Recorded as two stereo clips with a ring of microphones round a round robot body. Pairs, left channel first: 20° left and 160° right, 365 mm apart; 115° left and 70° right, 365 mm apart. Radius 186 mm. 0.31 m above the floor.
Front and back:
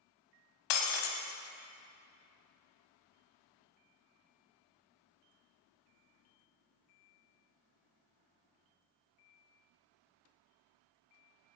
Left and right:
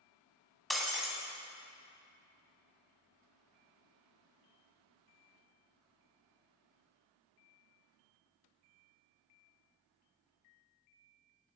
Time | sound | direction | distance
0.7 | breaking glass | 25° left | 1.2 m